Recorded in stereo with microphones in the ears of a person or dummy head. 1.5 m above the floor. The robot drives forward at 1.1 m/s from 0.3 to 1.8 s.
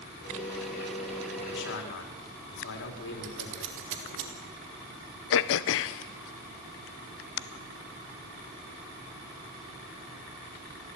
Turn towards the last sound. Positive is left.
turn(degrees=70)  # may be behind; listen again after turning